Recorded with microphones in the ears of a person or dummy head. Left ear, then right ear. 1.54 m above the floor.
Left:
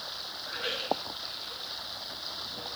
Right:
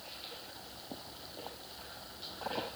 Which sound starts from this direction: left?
Running water, at 0.0 s.